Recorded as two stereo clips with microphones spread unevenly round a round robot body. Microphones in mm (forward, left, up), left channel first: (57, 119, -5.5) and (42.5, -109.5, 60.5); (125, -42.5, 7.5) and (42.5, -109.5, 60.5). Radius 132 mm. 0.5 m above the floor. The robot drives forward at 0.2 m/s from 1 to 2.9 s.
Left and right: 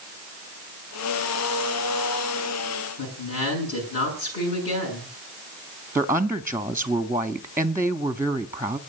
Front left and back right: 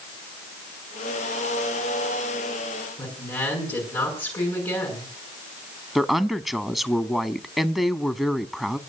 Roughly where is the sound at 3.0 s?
Left.